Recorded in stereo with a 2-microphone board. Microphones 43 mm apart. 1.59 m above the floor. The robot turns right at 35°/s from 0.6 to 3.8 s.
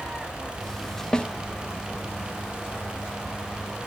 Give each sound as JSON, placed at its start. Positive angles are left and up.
{"t": 1.1, "sound": "a snare drum", "side_deg": 20, "distance_m": 0.6}